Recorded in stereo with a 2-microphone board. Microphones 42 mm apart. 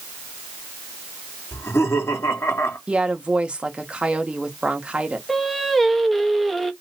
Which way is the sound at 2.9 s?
20° right (ahead or behind).